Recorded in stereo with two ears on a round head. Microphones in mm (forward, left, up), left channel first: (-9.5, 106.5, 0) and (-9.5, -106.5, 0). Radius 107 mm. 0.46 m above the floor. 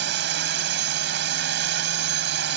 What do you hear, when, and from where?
0.0 s a drone: 50° right (ahead or behind)